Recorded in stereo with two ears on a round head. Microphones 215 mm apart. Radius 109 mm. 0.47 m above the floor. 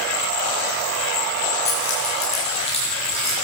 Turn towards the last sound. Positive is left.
turn(degrees=25)  # may be behind; listen again after turning